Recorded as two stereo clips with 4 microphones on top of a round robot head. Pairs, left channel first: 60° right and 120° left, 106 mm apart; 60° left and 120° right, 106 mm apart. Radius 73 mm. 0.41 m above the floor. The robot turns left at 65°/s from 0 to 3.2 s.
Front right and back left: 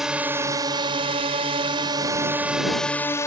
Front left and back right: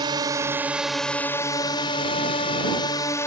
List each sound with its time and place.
0.0 s a drone: 150° right; by 3.3 s straight ahead